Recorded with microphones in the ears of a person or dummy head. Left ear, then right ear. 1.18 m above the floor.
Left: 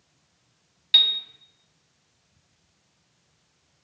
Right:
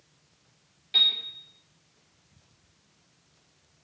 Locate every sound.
0.9 s a piano: 50° left (ahead or behind), 0.6 m